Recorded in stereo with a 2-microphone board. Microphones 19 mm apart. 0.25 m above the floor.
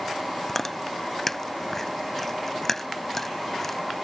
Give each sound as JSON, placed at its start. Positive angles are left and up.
{"t": 0.5, "sound": "chewing", "side_deg": 15}